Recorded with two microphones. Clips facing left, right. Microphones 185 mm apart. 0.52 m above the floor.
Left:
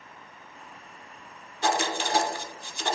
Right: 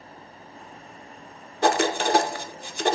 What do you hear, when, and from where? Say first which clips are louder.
1.6 s writing: right 6 dB; 65° right (ahead or behind), 0.7 m